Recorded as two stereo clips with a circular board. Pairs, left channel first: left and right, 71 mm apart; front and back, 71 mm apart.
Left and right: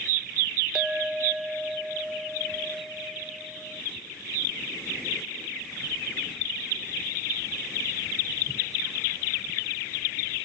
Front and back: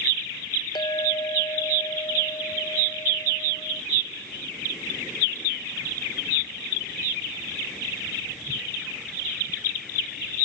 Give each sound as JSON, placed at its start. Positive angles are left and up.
{"t": 0.8, "sound": "a clink", "azimuth_deg": -10}